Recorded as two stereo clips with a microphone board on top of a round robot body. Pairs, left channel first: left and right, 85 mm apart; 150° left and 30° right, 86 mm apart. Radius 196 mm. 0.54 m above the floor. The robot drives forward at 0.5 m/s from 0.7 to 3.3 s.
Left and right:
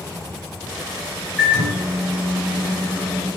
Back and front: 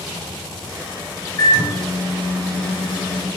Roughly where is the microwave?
Behind.